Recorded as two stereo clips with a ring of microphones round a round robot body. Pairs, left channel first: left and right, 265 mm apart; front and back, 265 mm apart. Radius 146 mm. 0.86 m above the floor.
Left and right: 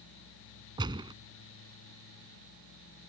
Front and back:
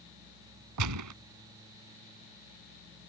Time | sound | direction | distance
0.8 | a gunshot | 165° right | ?